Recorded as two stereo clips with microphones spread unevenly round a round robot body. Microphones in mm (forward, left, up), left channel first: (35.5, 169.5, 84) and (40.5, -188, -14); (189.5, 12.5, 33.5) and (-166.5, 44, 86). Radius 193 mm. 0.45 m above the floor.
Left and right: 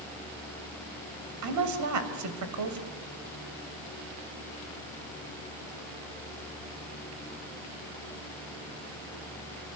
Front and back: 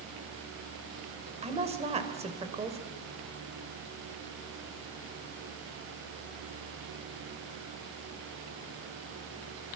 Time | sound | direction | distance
1.4 | a woman speaking | 110° right | 2.5 m